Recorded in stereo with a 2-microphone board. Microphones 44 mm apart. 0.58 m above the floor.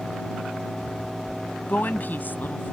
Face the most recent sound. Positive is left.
turn(degrees=45)  # may be behind; listen again after turning